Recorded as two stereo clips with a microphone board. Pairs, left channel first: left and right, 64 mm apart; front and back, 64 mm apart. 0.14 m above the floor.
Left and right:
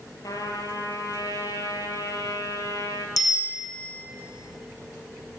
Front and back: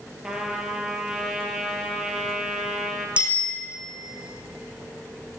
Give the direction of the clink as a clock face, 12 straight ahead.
No clink in this recording.